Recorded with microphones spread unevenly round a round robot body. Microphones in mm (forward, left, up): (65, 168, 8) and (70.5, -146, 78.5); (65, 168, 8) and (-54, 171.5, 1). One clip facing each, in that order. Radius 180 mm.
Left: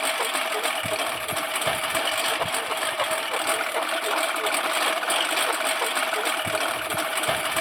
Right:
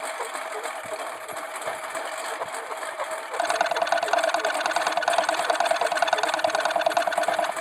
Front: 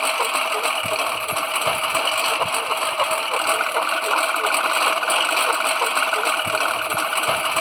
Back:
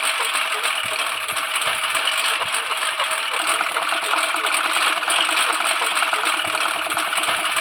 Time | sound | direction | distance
0.0 | a lawn mower | 55° left | ?
3.3 | a rattle | 105° right | ?